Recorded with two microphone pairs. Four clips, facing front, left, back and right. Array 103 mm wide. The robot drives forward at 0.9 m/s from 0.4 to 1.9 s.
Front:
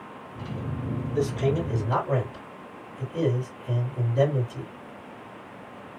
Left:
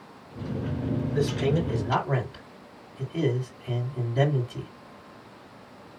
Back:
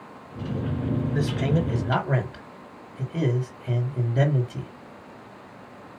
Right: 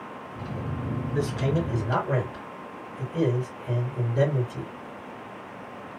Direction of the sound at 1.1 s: 175° right.